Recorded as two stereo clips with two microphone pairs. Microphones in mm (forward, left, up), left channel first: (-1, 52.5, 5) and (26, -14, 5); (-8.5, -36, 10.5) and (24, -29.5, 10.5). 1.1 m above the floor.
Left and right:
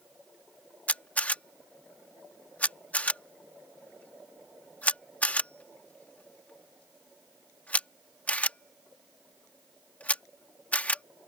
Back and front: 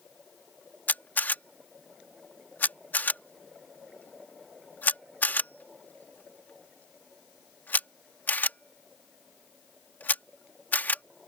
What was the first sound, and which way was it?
A camera shutter, straight behind.